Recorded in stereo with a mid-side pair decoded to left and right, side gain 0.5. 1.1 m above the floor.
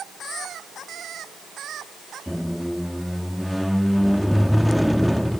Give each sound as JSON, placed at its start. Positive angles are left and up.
{"t": 2.3, "sound": "a squeak", "azimuth_deg": 5}